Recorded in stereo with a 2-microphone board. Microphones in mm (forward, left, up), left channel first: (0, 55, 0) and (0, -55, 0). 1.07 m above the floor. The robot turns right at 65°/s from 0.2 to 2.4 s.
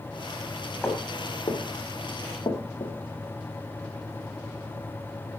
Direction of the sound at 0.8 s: 20° left (ahead or behind).